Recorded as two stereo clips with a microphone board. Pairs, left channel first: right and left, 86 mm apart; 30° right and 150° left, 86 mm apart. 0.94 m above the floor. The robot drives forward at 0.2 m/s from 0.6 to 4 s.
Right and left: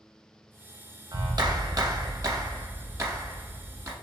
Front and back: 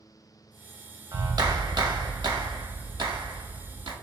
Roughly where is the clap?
Behind left.